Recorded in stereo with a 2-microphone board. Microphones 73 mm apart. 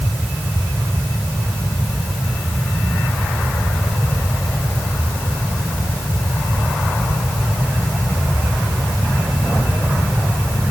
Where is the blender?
I don't hear a blender.